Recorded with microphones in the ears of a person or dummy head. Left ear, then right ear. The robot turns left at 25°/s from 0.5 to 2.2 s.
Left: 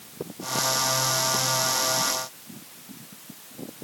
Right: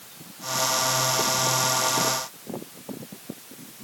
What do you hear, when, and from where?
Only background noise.